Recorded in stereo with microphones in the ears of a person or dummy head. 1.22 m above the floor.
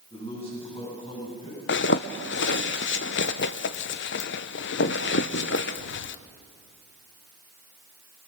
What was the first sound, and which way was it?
A man speaking, 35° left (ahead or behind).